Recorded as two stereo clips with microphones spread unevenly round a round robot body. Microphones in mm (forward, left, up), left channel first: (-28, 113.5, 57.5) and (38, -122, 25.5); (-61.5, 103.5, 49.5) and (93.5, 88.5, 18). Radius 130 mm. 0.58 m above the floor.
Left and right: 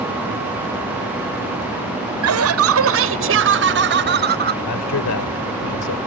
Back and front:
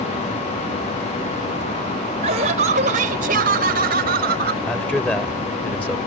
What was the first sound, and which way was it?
Laughter, 60° right.